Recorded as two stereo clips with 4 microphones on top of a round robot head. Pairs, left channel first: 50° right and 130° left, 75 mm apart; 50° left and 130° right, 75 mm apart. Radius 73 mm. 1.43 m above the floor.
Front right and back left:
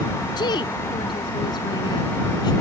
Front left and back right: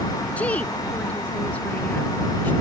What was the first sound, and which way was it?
A woman speaking, 25° right.